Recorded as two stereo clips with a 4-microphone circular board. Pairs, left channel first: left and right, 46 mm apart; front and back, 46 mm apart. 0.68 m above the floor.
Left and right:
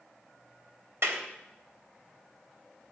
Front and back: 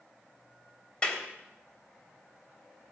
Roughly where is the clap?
Ahead right.